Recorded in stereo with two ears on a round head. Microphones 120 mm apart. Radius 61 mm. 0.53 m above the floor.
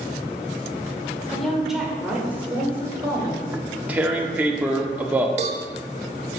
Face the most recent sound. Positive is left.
turn(degrees=-55)  # may be behind; listen again after turning